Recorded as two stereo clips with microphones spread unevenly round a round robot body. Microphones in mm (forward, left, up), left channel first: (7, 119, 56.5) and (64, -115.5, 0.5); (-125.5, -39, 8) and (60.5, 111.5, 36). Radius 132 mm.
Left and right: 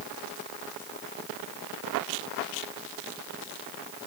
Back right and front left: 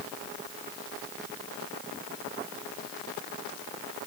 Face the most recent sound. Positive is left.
No sound to turn to.